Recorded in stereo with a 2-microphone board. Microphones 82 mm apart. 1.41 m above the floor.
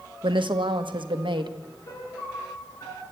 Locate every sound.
0.2 s a woman speaking: 80° right, 1.4 m
1.9 s a piano: 45° left (ahead or behind), 8.5 m